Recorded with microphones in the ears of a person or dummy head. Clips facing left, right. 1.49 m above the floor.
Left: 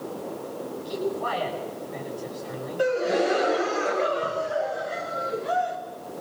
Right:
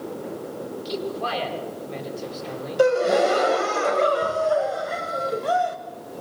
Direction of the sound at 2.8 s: 65° right (ahead or behind).